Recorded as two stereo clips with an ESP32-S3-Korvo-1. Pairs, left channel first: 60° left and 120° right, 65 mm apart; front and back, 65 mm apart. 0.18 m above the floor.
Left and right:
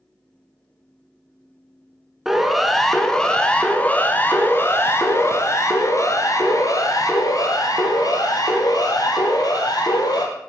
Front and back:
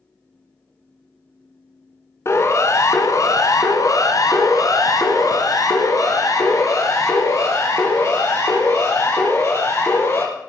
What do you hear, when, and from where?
2.2 s a siren: 35° right, 2 m; by 10.2 s 45° left, 5 m